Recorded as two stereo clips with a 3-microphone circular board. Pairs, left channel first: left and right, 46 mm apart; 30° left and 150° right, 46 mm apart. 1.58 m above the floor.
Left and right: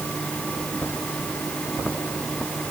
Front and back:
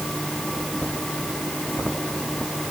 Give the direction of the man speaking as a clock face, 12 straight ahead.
No man speaking in this recording.